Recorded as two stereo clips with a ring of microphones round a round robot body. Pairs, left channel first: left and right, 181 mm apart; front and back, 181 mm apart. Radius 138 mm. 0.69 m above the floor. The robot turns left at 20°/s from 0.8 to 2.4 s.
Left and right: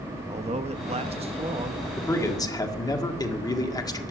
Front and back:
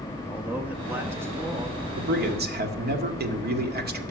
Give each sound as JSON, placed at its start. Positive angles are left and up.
{"t": 0.3, "sound": "a man speaking", "azimuth_deg": -105, "distance_m": 0.7}
{"t": 2.0, "sound": "a man speaking", "azimuth_deg": 165, "distance_m": 1.9}